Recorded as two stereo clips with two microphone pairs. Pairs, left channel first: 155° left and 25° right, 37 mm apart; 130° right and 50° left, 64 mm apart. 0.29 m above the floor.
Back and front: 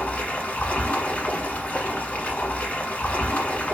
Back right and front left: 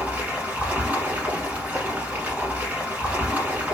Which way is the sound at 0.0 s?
110° left.